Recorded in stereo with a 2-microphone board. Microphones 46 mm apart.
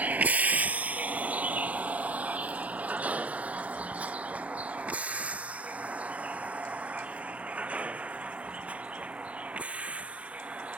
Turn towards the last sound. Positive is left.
turn(degrees=-30)  # may be behind; listen again after turning